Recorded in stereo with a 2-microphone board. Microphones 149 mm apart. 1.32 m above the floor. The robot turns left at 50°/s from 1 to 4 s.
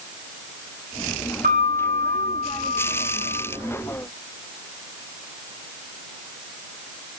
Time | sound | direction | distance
1.4 | a piano | 80° right | 2.5 m